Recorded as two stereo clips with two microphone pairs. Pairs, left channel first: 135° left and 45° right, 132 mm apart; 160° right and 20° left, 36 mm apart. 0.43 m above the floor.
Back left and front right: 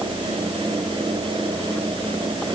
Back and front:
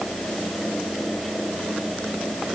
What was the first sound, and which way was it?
Only background noise.